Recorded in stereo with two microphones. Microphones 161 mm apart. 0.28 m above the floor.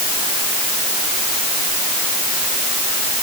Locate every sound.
Only background noise.